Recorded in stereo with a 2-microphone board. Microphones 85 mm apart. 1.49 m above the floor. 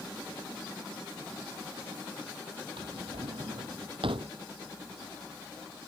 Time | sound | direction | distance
2.8 | a drawer | 80° right | ?